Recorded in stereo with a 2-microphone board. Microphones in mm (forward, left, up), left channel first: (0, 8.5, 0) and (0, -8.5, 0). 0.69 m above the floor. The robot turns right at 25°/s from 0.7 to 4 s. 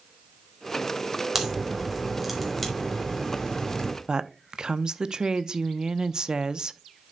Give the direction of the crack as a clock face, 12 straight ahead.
1 o'clock.